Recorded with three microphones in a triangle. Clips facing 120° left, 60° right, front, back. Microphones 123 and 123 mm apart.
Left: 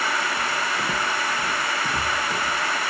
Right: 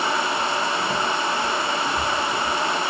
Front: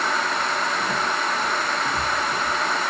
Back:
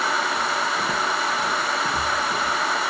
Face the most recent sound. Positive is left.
turn(degrees=145)